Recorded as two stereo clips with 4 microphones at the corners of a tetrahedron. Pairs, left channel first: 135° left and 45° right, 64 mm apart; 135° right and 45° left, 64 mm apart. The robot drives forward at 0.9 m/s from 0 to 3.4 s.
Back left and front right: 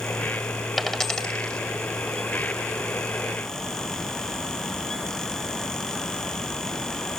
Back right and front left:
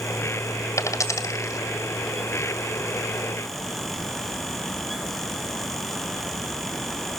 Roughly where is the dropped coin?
Behind right.